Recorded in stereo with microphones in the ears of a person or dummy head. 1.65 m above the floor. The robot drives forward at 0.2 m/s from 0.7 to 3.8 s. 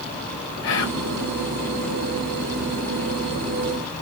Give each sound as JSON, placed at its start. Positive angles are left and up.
{"t": 0.6, "sound": "whispering", "side_deg": 70, "distance_m": 1.3}